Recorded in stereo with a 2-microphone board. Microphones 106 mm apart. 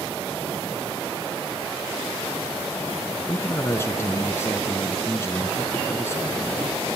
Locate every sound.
3.3 s a man speaking: 25° left (ahead or behind), 1.7 m